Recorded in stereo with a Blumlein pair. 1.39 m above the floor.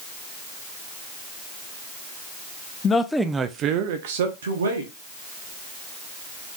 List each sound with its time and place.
2.8 s a man speaking: 20° left, 0.5 m; by 4.9 s 70° right, 1.2 m